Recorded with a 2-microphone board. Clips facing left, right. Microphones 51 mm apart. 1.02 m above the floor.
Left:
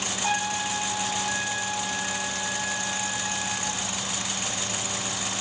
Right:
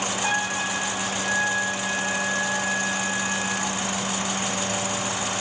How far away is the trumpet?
About 1.9 m.